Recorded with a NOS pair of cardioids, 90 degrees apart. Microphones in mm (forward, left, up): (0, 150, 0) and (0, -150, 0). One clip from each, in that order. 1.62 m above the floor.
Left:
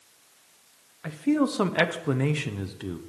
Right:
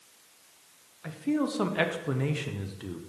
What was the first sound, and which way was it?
A man speaking, 25° left.